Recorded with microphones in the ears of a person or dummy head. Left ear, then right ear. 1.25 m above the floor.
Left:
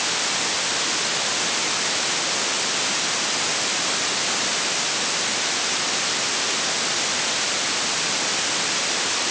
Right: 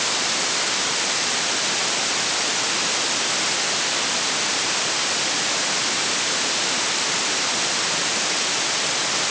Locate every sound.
Only background noise.